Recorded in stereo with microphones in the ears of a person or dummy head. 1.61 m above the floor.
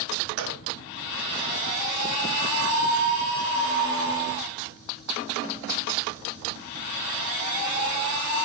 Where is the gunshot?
70° right (ahead or behind), 1.1 m.